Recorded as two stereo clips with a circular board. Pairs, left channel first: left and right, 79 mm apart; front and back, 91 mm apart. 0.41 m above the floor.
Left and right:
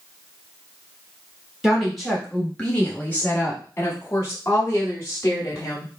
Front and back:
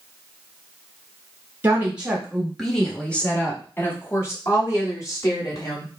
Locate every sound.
1.6 s a woman speaking: 165° right, 1.2 m; by 5.9 s 45° left, 2.5 m